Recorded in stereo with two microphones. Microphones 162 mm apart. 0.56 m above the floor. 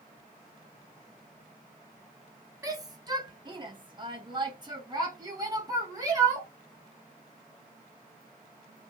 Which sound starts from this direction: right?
A shout, at 2.6 s.